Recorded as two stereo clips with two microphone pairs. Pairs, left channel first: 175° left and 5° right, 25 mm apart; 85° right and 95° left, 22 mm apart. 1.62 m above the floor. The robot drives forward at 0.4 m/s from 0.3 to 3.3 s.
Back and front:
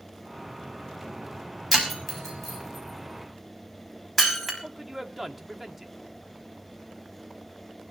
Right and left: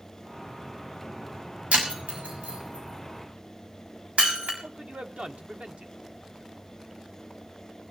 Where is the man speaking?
80° left, 1.7 m.